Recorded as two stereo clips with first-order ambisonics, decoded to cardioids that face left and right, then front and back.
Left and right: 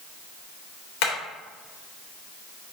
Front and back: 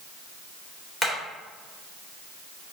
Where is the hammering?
95° left, 2.5 m.